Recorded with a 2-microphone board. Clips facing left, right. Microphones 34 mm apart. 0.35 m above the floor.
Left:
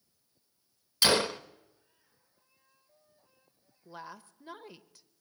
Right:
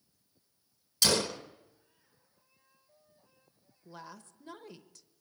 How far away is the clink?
I don't hear a clink.